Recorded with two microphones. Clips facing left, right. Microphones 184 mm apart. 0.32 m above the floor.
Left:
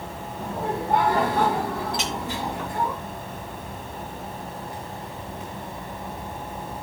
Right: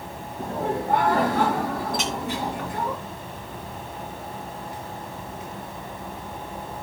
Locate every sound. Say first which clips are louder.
0.4 s laughter: right 2 dB; 75° right (ahead or behind), 4 m; by 2.9 s 65° right (ahead or behind), 3 m
1.9 s a clink: right 2 dB; 50° right (ahead or behind), 2.5 m